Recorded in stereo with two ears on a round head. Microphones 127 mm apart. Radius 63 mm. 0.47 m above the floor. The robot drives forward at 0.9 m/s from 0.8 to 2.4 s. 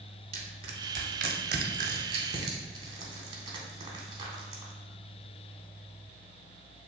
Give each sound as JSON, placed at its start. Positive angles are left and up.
{"t": 0.3, "sound": "crushing", "side_deg": -45, "distance_m": 0.8}